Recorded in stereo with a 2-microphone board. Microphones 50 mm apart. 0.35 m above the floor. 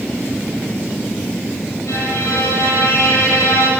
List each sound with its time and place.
1.9 s a violin: 75° left (ahead or behind), 9.5 m